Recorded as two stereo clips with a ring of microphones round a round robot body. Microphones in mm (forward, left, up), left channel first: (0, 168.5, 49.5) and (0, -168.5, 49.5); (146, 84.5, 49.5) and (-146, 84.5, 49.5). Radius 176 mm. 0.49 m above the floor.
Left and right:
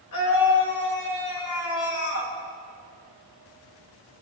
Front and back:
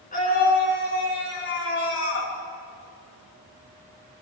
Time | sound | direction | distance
0.1 | a scream | 60° left | 7 m